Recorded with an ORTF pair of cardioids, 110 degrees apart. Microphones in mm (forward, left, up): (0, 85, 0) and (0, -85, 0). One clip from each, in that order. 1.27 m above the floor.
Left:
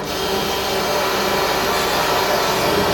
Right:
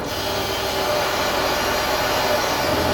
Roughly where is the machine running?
Ahead left.